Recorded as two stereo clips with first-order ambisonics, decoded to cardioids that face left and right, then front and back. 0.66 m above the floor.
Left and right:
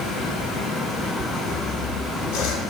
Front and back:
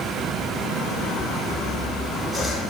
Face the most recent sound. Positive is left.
turn(degrees=90)